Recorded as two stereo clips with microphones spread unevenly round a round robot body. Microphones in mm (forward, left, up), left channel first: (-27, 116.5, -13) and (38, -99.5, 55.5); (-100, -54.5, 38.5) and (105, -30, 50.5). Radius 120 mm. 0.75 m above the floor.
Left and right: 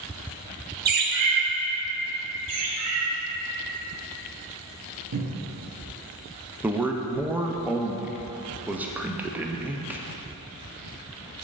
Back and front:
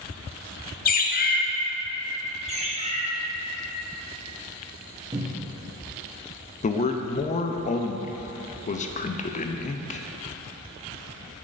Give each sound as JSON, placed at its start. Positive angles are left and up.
{"t": 0.8, "sound": "a bird", "azimuth_deg": -130, "distance_m": 0.7}
{"t": 2.5, "sound": "a bird", "azimuth_deg": -50, "distance_m": 1.1}
{"t": 5.1, "sound": "a cupboard door", "azimuth_deg": -60, "distance_m": 0.9}
{"t": 6.6, "sound": "a man speaking", "azimuth_deg": -175, "distance_m": 0.5}